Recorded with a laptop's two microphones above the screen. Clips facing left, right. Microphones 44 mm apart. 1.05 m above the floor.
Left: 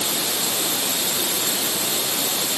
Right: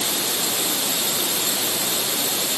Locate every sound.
Only background noise.